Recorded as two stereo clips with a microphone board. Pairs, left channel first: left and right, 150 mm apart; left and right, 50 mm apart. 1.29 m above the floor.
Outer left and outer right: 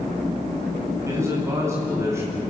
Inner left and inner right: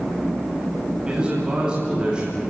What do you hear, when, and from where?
1.1 s a man speaking: 20° right (ahead or behind), 9.5 m